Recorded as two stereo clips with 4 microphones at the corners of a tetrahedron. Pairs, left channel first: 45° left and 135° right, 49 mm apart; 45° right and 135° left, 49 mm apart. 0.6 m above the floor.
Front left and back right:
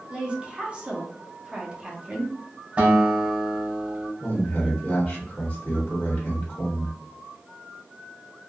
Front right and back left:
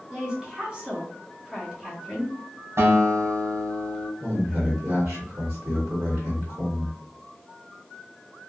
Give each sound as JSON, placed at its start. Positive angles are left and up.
{"t": 0.1, "sound": "a woman speaking", "azimuth_deg": 180, "distance_m": 1.0}
{"t": 2.8, "sound": "a guitar", "azimuth_deg": 165, "distance_m": 1.5}
{"t": 4.2, "sound": "a man speaking", "azimuth_deg": 100, "distance_m": 1.2}